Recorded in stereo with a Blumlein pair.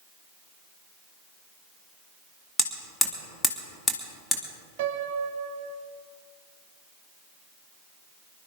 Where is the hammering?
10° left, 2 m.